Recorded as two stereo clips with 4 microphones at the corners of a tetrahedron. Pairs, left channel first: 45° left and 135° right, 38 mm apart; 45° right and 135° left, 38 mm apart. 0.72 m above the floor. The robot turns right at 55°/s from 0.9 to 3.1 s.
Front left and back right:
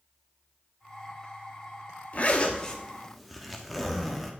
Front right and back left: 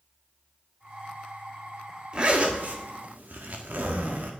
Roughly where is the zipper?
Left.